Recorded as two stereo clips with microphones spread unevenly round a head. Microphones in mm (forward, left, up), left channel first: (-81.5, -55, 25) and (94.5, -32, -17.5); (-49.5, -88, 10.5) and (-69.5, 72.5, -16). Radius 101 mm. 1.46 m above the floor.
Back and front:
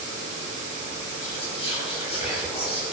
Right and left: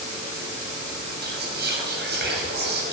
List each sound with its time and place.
1.2 s whispering: 125° left, 7 m